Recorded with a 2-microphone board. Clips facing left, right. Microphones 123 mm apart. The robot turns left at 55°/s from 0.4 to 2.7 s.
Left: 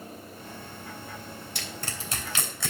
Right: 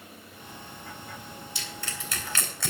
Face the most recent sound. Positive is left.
turn(degrees=0)  # may be behind; listen again after turning